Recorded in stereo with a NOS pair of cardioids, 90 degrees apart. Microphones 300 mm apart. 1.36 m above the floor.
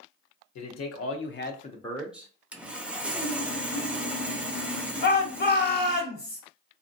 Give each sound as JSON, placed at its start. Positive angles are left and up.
{"t": 0.6, "sound": "a man speaking", "azimuth_deg": 65, "distance_m": 1.0}
{"t": 2.5, "sound": "sawing", "azimuth_deg": -5, "distance_m": 0.5}
{"t": 5.0, "sound": "a shout", "azimuth_deg": 35, "distance_m": 0.9}